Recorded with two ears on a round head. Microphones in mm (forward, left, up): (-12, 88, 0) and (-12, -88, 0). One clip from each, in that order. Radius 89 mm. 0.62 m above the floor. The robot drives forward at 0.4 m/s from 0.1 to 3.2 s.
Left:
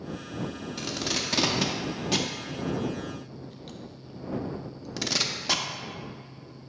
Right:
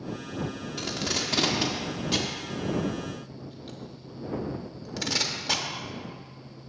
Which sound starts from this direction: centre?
Tape being pulled, at 0.8 s.